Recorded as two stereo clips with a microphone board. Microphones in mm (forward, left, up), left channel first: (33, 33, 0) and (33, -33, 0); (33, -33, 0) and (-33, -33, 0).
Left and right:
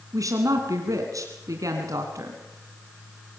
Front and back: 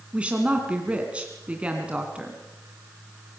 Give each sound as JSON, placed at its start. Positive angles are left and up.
{"t": 0.1, "sound": "a woman speaking", "azimuth_deg": -110, "distance_m": 2.5}